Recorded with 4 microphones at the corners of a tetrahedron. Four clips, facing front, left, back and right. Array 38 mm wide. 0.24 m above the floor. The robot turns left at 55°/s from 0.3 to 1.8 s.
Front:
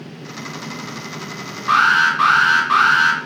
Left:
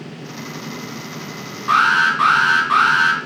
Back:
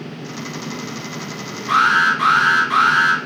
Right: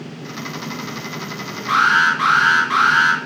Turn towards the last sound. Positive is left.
turn(degrees=25)